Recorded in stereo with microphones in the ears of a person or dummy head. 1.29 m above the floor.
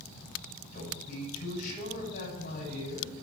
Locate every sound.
0.7 s a man speaking: 50° left (ahead or behind), 8 m